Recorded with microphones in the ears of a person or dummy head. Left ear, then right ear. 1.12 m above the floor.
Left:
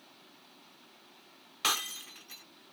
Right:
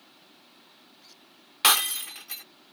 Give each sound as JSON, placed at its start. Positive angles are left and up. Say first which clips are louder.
{"t": 1.6, "sound": "breaking glass", "louder": "right 9 dB", "side_deg": -25}